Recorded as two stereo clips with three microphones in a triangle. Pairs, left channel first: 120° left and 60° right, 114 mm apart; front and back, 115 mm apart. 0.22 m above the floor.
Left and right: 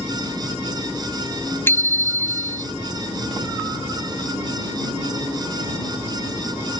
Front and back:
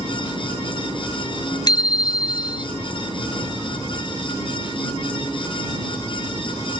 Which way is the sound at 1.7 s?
50° left.